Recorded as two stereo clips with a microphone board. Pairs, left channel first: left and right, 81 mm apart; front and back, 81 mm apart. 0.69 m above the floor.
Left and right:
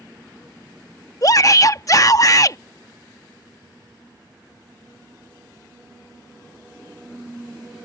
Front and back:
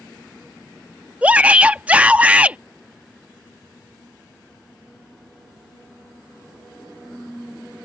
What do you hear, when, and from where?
1.2 s a shout: 110° left